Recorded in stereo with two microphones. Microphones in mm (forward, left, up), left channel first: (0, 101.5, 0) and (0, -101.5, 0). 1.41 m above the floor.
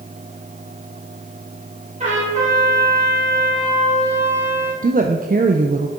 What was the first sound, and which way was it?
A trumpet, 35° right (ahead or behind).